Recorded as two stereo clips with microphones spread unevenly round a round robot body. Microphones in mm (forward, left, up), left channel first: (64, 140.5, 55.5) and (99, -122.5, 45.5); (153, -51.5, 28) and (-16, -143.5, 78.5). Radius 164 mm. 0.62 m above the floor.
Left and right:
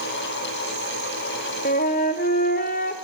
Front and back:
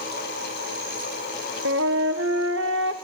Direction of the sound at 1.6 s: 160° left.